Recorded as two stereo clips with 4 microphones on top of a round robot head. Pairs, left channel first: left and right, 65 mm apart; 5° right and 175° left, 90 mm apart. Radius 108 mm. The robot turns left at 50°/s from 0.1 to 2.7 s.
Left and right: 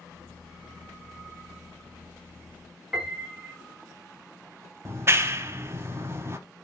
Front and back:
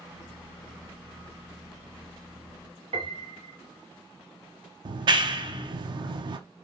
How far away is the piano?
About 1.0 m.